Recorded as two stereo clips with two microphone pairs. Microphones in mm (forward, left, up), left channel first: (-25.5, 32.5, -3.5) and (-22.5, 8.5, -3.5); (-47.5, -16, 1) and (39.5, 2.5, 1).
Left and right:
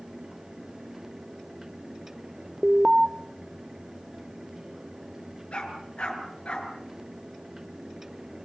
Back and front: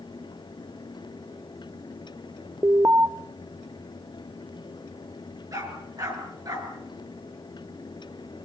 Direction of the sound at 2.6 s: 25° right.